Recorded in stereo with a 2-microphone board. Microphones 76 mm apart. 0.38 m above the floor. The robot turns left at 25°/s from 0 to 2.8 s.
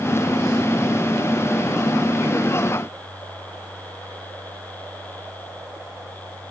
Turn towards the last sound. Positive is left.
No sound to turn to.